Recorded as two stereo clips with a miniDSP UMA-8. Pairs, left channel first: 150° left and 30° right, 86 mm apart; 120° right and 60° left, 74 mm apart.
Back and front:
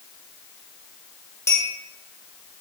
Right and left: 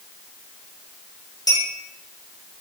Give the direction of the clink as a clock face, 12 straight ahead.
5 o'clock.